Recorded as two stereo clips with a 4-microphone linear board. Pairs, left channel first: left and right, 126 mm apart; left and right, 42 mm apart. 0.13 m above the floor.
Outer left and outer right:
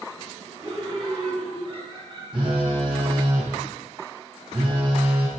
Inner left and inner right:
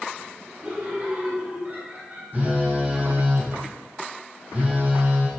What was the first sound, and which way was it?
Laughter, 25° right (ahead or behind).